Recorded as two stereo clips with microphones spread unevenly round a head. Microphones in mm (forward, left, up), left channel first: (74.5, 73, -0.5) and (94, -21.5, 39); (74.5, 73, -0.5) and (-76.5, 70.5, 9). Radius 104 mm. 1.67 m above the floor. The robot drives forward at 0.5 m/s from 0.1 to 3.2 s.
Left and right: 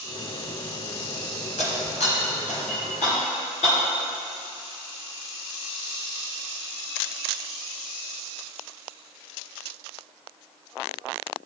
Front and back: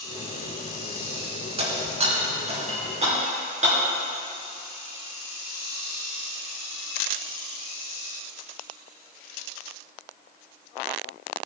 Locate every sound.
1.6 s breaking glass: 145° left, 3 m; by 3.8 s 155° left, 3.5 m